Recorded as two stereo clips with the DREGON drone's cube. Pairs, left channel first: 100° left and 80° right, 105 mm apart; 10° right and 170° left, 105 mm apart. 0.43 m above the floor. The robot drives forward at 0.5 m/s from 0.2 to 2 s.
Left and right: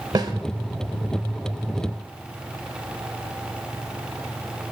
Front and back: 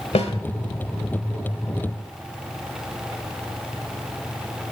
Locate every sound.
0.1 s a snare drum: 25° right, 0.7 m; by 0.3 s 30° right, 0.7 m